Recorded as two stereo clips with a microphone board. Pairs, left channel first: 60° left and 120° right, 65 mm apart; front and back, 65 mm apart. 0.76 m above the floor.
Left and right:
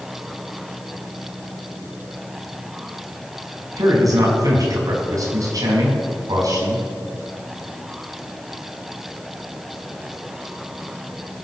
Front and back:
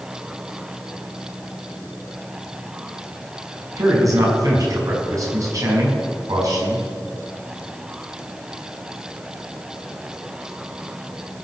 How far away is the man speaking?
About 5.5 m.